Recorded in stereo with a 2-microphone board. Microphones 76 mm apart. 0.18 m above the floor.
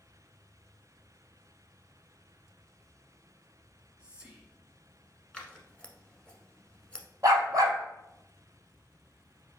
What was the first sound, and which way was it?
Whispering, 20° right (ahead or behind).